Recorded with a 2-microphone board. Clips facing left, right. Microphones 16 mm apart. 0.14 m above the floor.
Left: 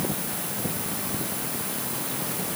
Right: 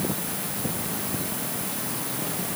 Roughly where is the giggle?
I don't hear a giggle.